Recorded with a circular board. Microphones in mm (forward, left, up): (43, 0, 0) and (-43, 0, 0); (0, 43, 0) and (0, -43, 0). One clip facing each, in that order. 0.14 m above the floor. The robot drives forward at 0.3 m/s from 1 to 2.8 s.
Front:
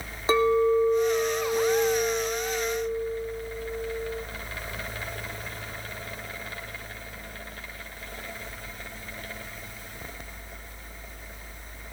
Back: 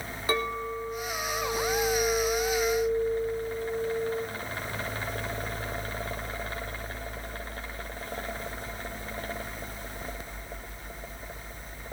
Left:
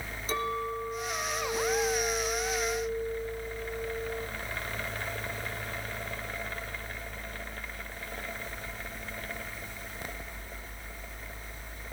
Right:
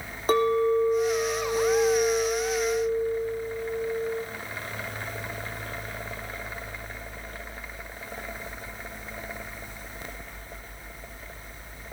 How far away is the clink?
About 3.5 m.